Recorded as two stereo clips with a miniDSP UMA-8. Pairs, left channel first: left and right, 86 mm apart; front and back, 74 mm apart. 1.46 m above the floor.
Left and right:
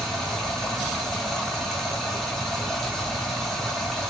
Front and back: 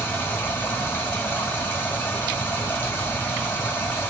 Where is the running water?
5° left, 1.3 m.